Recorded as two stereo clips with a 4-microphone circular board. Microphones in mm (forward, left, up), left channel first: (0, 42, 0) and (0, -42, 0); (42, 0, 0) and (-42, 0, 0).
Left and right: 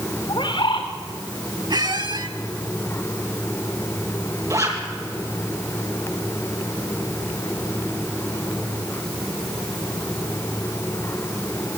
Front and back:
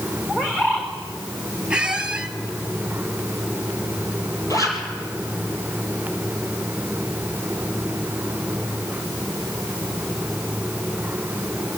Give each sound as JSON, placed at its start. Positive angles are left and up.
{"t": 0.3, "sound": "a bird", "azimuth_deg": 75, "distance_m": 4.0}
{"t": 1.7, "sound": "a squeak", "azimuth_deg": -100, "distance_m": 1.4}
{"t": 4.5, "sound": "a zipper", "azimuth_deg": -45, "distance_m": 4.0}